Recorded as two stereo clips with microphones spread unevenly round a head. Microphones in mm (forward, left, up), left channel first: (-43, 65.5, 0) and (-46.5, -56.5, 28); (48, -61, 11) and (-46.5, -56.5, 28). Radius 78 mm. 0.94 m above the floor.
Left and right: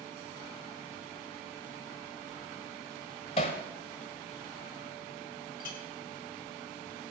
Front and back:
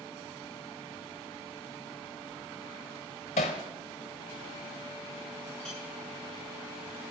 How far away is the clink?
About 3 m.